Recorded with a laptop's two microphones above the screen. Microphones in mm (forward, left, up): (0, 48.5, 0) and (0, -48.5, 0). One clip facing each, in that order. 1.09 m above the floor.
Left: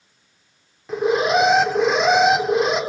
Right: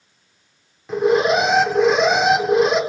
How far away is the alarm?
About 2 m.